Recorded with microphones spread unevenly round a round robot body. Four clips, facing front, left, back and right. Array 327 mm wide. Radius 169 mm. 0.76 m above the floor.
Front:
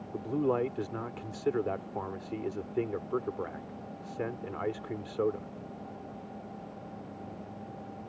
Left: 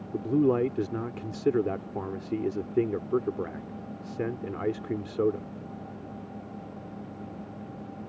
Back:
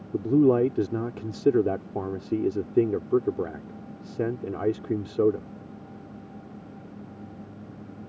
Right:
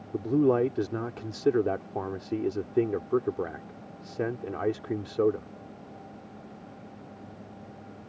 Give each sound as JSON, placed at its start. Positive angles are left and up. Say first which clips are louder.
{"t": 0.1, "sound": "a man speaking", "louder": "right 1 dB, back 10 dB", "azimuth_deg": 175}